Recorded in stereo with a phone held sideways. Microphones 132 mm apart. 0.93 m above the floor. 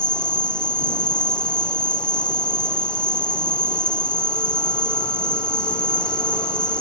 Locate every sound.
0.0 s an insect: 5° left (ahead or behind)